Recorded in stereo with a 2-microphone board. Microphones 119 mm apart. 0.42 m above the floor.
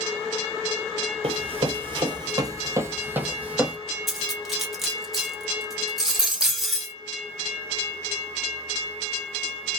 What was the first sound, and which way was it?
Running footsteps, 55° right (ahead or behind).